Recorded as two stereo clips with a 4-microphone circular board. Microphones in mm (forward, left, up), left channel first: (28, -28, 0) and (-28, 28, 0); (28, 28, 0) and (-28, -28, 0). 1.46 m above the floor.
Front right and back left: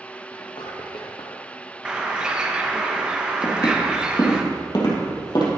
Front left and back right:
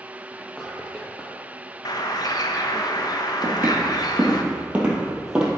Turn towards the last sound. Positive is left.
turn(degrees=-55)